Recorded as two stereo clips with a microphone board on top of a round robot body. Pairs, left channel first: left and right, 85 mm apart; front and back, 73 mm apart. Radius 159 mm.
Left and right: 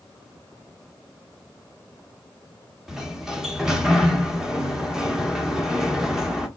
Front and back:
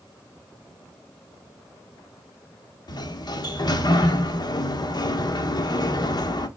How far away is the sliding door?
About 1.1 m.